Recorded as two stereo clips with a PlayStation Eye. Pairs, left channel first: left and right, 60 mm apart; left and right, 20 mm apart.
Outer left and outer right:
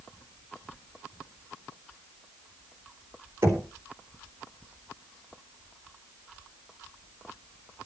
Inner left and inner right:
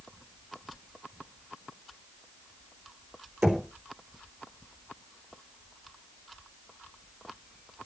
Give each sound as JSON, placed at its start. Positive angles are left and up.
{"t": 3.4, "sound": "knocking", "side_deg": -70, "distance_m": 3.5}